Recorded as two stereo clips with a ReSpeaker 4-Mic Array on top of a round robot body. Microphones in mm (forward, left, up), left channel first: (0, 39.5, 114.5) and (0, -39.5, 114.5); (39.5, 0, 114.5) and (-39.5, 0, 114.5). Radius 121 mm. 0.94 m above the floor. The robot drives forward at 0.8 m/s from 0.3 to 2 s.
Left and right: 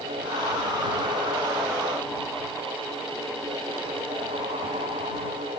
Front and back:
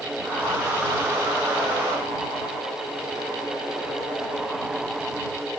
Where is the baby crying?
No baby crying in this recording.